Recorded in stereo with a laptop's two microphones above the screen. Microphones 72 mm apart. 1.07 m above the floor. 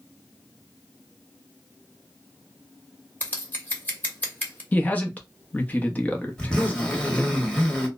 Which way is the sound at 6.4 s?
15° left (ahead or behind).